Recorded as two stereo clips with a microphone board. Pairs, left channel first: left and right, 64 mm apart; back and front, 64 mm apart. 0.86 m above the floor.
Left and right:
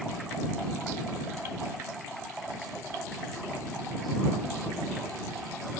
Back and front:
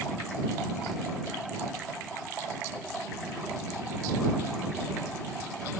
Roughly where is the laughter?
I don't hear laughter.